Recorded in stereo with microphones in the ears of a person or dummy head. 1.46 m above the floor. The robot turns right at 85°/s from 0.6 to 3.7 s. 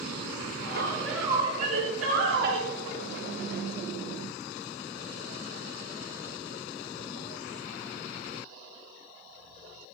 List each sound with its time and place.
0.6 s a woman speaking: 135° left, 4.5 m; by 2.7 s 50° right, 4.5 m